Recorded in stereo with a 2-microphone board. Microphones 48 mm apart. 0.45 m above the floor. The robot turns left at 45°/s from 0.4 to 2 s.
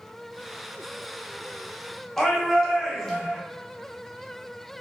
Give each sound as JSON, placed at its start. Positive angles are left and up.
{"t": 2.2, "sound": "a shout", "side_deg": 10, "distance_m": 0.9}